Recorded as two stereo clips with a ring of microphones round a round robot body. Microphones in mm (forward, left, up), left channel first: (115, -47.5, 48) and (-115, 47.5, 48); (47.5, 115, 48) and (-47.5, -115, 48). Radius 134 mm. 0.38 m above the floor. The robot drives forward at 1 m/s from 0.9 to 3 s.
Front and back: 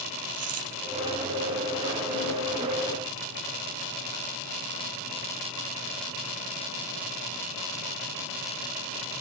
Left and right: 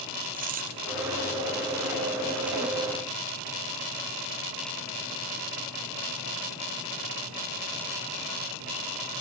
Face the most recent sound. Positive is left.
turn(degrees=-175)